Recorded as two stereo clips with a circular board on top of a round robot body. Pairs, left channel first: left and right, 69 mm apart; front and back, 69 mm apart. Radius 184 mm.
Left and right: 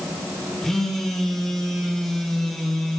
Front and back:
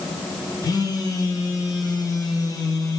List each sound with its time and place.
0.6 s a phone buzzing: 5° left, 1.2 m